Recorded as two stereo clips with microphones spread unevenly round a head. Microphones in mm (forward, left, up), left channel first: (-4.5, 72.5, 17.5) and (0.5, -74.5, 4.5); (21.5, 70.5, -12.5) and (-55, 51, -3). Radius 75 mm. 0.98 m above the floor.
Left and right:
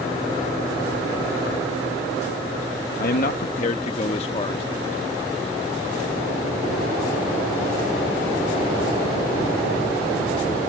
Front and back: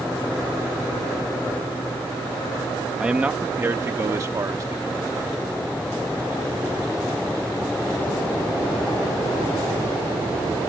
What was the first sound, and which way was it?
A man speaking, 115° left.